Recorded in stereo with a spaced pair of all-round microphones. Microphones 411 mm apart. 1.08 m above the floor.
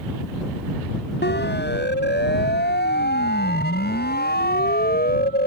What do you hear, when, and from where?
1.2 s a siren: 25° left (ahead or behind); by 5.5 s 20° left (ahead or behind)